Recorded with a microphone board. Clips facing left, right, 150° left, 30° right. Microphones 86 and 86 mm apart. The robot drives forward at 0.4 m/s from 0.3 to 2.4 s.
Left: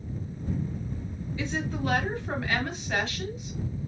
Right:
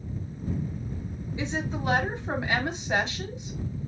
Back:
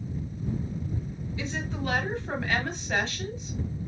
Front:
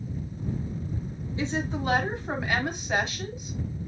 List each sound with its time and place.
1.4 s a woman speaking: 45° right, 1.5 m; by 3.6 s 75° right, 1.4 m